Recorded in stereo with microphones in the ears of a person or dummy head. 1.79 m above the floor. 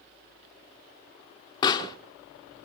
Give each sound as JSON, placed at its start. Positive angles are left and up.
{"t": 1.6, "sound": "a pop", "side_deg": 25, "distance_m": 0.9}